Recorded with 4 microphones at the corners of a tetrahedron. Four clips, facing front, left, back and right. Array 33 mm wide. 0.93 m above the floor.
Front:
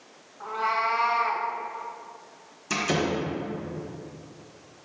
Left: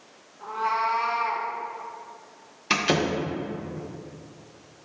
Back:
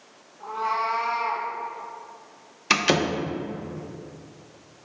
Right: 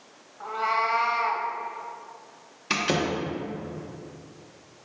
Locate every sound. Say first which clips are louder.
0.4 s a cat meowing: even, even; 60° right, 1.4 m
2.7 s a door slam: left 2 dB, back 5 dB; 175° left, 1.0 m